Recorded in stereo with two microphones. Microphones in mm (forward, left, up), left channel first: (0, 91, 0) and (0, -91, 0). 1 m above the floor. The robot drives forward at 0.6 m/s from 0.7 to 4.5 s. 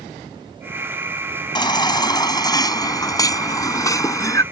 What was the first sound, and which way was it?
A baby crying, 25° left (ahead or behind).